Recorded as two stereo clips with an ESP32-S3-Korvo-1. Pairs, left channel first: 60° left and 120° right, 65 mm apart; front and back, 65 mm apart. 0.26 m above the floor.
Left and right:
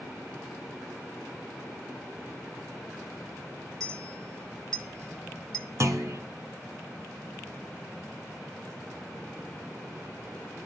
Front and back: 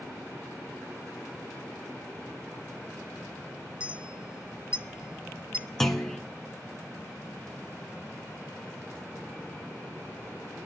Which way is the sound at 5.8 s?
85° right.